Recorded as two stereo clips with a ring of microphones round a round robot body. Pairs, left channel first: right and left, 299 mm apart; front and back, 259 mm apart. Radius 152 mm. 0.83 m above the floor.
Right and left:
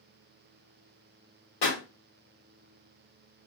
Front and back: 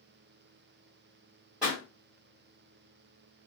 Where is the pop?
95° right, 1.6 m.